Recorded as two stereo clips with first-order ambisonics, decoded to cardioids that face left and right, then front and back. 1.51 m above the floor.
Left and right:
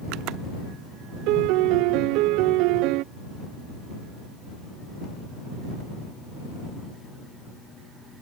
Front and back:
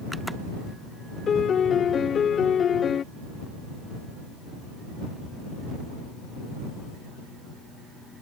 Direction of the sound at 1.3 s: 65° right.